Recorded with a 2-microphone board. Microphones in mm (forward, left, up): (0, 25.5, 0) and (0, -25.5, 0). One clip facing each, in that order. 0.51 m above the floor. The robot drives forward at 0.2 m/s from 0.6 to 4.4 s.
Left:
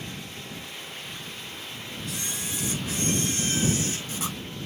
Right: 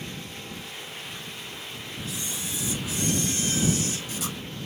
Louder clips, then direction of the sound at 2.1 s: Left 1 dB; 55° left (ahead or behind).